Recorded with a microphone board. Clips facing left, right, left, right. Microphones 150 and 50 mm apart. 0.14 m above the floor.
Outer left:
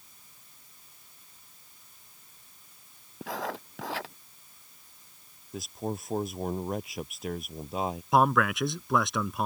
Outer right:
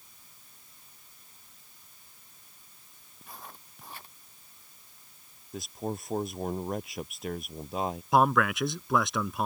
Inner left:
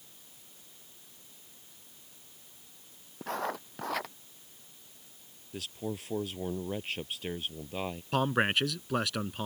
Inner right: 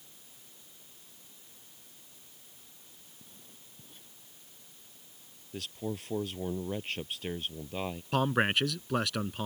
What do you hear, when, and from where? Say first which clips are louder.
3.2 s writing: outer left 14 dB, inner left 27 dB; 85° left
5.5 s a man speaking: outer left 1 dB, even; centre (ahead or behind)
8.1 s a man speaking: even, even; centre (ahead or behind)